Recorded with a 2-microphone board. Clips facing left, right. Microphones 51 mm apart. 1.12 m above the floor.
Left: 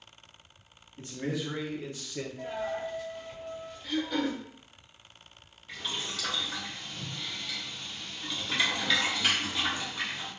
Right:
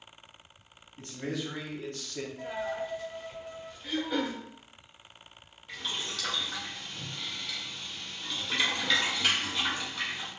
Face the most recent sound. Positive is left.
turn(degrees=10)  # may be behind; listen again after turning